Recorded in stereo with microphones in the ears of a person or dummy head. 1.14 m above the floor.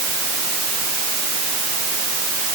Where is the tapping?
I don't hear tapping.